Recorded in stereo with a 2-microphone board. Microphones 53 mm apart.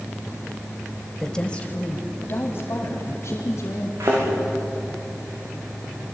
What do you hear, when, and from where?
1.2 s a woman speaking: 10° left (ahead or behind), 1.5 m; by 3.9 s 65° left (ahead or behind), 3.5 m
4.0 s a thud: 85° right, 9 m